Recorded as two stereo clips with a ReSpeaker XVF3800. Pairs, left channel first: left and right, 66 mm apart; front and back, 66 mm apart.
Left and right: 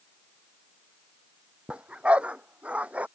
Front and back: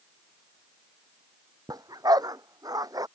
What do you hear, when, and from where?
1.7 s a dog barking: 160° right